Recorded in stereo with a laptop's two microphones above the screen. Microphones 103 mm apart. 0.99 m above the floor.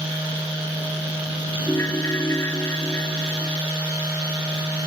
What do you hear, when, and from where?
1.7 s a ringtone: 30° left (ahead or behind)